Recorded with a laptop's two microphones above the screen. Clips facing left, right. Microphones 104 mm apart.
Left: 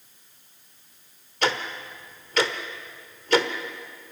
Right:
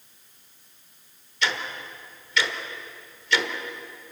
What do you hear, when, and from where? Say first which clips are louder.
1.4 s ticking: left 3 dB; 45° left (ahead or behind), 1.5 m